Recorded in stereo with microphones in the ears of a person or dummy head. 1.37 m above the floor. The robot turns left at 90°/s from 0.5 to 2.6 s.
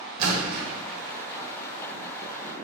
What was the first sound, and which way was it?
A splash, 45° right (ahead or behind).